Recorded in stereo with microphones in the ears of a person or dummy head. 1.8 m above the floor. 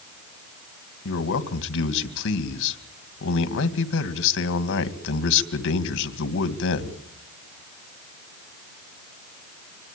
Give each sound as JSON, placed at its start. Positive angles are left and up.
{"t": 1.1, "sound": "a man speaking", "side_deg": 75, "distance_m": 2.5}